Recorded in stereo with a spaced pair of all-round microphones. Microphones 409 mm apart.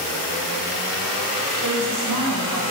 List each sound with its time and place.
1.6 s a woman speaking: 50° right (ahead or behind), 5 m